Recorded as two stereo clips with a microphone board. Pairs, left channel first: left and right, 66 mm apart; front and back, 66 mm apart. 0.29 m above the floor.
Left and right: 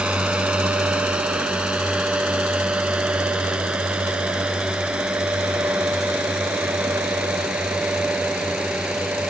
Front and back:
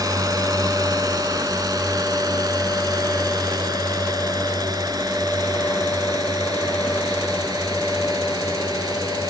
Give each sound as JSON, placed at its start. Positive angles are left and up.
{"t": 0.0, "sound": "a drone", "azimuth_deg": -165}